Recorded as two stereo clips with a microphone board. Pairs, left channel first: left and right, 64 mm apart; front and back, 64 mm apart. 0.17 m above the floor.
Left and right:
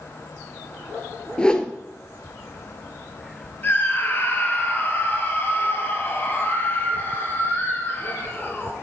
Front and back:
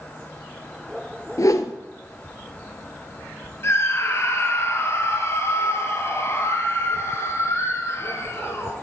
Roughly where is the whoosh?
Ahead.